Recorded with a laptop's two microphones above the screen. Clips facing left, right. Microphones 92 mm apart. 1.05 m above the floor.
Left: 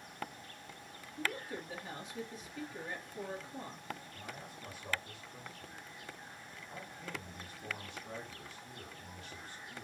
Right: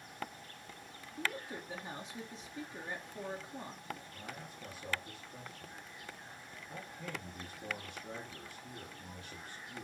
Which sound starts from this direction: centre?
A woman speaking, at 1.2 s.